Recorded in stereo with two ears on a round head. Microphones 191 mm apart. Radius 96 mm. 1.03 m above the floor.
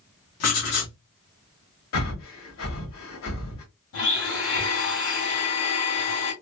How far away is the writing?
About 1.7 m.